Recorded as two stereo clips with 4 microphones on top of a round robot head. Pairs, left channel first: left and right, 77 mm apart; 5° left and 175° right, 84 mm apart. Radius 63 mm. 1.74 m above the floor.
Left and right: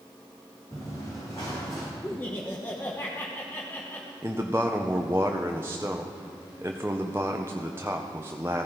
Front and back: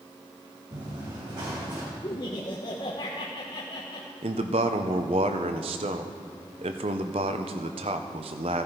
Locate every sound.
0.7 s running footsteps: 155° left, 5.5 m
2.0 s laughter: 30° left, 1.2 m
4.2 s a man speaking: 160° right, 0.9 m